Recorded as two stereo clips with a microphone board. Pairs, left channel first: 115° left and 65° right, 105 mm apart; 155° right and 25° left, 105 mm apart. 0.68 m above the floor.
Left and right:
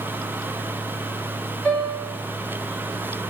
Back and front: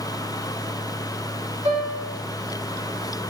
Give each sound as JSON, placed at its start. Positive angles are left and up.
{"t": 1.6, "sound": "a piano", "azimuth_deg": 30, "distance_m": 1.1}